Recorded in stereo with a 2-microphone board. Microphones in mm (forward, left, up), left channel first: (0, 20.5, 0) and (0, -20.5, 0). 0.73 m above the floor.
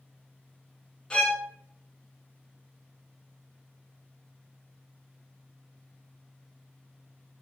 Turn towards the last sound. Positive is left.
turn(degrees=20)  # may be behind; listen again after turning